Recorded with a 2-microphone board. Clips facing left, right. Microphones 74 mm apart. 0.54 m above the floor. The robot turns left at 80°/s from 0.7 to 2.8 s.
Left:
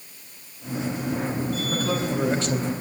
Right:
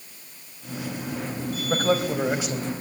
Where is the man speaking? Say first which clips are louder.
Right 5 dB; 115° right, 4 m; by 2.7 s 165° left, 4 m.